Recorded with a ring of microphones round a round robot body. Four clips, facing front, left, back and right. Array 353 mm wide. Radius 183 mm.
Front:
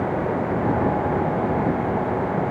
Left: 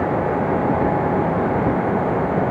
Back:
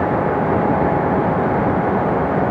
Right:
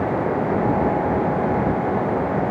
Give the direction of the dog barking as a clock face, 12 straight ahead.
I don't hear a dog barking.